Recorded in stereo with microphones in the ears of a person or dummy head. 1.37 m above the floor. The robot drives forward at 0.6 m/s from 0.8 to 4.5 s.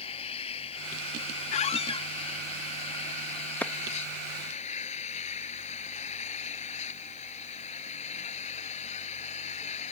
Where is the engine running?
40° left (ahead or behind); by 9.9 s 45° left (ahead or behind).